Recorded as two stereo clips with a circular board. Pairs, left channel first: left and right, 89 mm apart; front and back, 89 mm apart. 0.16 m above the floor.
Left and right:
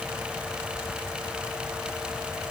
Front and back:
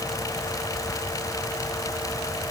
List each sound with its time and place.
Only background noise.